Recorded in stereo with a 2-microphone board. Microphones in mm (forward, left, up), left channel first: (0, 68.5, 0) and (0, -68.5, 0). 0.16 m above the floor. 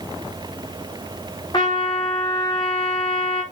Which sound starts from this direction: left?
A trumpet, at 1.5 s.